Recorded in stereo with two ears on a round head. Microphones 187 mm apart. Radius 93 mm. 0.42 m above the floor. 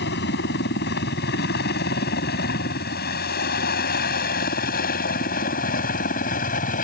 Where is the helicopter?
55° left (ahead or behind); by 6.8 s 40° left (ahead or behind).